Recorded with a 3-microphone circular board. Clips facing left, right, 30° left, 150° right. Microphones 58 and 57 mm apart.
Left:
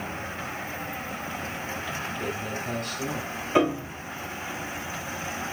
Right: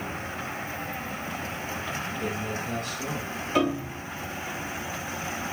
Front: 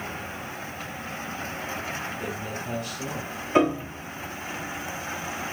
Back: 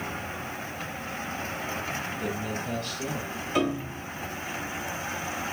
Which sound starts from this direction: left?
A man speaking, at 2.2 s.